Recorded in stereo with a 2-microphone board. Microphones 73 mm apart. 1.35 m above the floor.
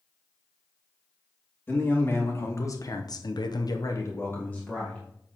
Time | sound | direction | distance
1.7 | a man speaking | 25° left (ahead or behind) | 2.5 m